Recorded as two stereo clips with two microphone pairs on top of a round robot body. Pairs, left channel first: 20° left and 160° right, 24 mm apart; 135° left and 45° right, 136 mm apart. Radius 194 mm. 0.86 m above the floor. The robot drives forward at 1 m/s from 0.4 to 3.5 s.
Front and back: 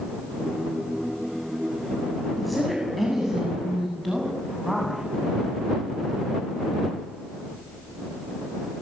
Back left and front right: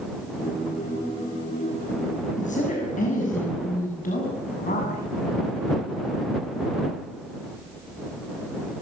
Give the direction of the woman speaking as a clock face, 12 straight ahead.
8 o'clock.